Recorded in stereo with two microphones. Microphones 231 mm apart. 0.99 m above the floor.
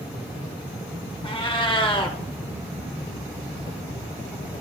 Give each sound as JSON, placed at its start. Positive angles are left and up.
{"t": 1.2, "sound": "a cat meowing", "side_deg": 20, "distance_m": 0.7}